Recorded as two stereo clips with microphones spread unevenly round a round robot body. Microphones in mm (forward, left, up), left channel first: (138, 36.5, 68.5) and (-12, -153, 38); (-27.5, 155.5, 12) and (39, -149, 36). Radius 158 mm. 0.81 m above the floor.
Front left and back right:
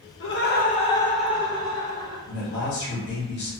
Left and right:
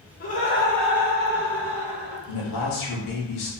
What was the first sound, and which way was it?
Laughter, 60° left.